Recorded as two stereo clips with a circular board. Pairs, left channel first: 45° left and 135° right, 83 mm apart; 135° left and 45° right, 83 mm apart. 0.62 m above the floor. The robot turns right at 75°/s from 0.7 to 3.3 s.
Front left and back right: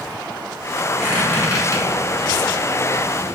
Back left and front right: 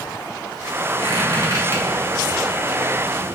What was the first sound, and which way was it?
A squeak, 45° right.